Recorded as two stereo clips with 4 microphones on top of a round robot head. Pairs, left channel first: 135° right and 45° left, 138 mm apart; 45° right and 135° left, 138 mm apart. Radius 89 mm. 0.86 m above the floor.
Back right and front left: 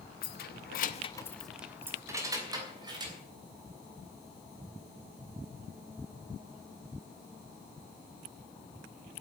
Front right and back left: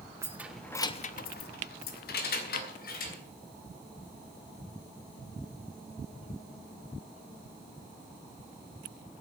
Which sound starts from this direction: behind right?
Keys jangling, at 0.2 s.